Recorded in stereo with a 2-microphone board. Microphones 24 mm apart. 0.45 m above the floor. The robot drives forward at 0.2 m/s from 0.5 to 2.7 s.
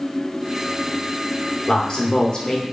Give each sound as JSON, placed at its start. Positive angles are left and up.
{"t": 1.7, "sound": "a man speaking", "side_deg": 30, "distance_m": 0.8}